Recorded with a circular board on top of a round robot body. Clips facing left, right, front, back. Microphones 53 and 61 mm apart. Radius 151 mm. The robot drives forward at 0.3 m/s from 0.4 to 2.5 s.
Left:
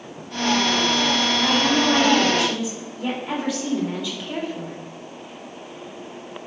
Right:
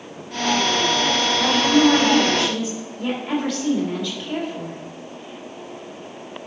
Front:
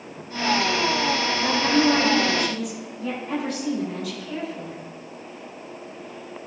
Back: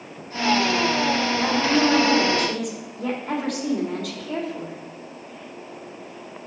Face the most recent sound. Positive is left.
turn(degrees=170)